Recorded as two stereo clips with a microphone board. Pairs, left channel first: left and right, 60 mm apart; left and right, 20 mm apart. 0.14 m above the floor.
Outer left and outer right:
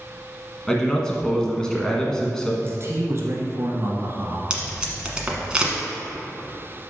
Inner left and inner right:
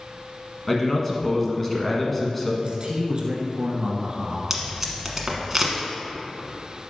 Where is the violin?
No violin in this recording.